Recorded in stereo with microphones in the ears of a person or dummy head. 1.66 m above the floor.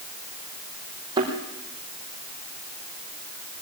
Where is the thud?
25° right (ahead or behind), 5.5 m.